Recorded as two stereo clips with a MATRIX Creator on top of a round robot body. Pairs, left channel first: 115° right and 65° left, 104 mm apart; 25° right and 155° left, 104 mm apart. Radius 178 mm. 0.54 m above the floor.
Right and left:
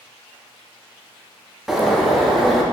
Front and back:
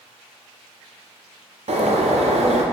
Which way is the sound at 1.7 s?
155° left.